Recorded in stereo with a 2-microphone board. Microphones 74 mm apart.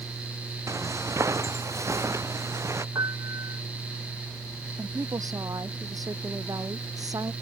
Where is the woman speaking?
60° right (ahead or behind).